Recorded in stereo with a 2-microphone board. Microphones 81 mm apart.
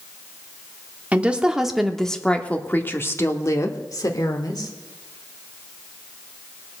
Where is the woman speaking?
20° right (ahead or behind), 1.1 m; by 4.7 s 55° left (ahead or behind), 1.7 m.